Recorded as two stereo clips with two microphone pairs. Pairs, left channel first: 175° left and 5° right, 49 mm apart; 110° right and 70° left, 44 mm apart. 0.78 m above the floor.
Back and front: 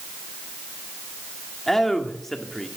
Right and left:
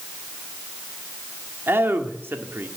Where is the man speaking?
95° left, 1.6 m.